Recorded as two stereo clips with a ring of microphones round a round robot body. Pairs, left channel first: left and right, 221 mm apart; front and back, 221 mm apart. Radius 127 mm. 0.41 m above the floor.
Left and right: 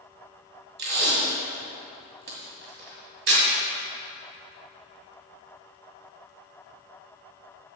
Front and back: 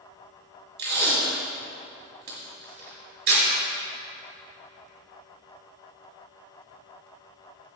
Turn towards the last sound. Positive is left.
turn(degrees=-130)